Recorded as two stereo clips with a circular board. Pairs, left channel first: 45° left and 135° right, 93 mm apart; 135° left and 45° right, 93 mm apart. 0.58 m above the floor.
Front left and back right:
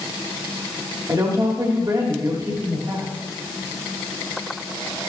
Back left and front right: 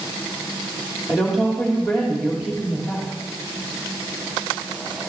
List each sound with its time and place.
1.1 s a woman speaking: 130° right, 1.6 m